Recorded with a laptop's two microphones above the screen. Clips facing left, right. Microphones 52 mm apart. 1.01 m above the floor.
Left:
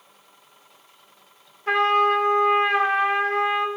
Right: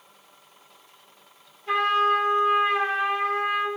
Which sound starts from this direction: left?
A trumpet, at 1.7 s.